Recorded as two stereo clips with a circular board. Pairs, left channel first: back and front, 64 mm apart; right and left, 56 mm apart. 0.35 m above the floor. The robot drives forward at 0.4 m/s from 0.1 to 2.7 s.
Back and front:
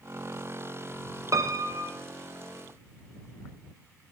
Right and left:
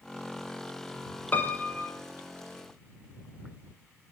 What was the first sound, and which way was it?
A piano, 30° right.